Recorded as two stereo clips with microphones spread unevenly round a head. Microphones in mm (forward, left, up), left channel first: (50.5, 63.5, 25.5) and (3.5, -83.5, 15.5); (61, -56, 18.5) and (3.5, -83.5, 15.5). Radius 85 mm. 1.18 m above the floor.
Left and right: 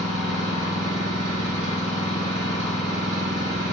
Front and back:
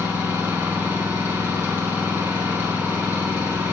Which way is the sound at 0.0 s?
100° right.